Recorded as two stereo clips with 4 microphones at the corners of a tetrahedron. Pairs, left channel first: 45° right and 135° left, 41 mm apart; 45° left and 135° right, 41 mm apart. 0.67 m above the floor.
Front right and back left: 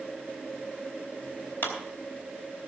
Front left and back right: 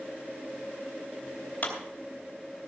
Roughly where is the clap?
Ahead.